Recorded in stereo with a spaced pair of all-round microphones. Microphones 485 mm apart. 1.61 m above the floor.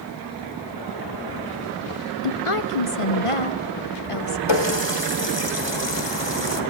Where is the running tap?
55° left (ahead or behind), 2.0 m.